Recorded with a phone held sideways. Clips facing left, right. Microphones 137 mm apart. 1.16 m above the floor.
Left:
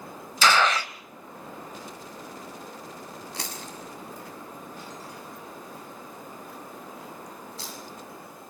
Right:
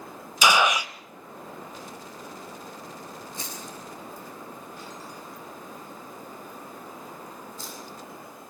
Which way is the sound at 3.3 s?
80° left.